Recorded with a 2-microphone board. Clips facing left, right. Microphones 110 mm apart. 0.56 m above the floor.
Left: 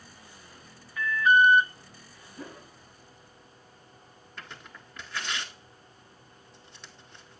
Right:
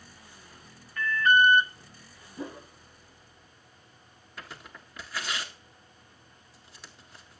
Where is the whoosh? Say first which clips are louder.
Right 5 dB; 20° right (ahead or behind), 0.7 m.